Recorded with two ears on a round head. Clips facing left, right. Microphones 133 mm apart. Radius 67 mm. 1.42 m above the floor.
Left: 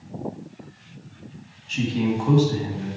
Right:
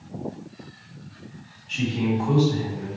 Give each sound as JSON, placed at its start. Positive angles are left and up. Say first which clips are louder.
{"t": 1.7, "sound": "a man speaking", "louder": "left 1 dB", "side_deg": 55, "distance_m": 2.0}